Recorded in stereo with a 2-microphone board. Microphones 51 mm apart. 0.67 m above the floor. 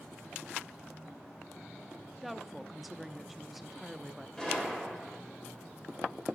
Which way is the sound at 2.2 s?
Centre (ahead or behind).